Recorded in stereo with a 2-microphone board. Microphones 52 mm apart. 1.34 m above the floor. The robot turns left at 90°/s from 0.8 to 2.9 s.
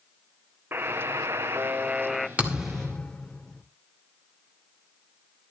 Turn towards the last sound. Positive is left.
turn(degrees=165)